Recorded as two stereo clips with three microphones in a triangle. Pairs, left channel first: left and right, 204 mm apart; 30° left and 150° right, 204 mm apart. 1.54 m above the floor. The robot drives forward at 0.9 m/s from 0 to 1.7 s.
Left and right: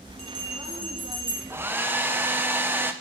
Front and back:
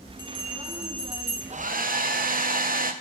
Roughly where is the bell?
Right.